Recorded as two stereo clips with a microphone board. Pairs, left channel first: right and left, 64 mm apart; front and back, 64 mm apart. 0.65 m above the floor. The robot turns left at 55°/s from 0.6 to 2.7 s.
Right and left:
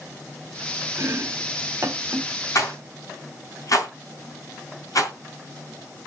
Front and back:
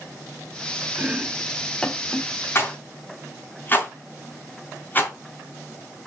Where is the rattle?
50° right, 3 m; by 5.1 s 60° right, 3 m.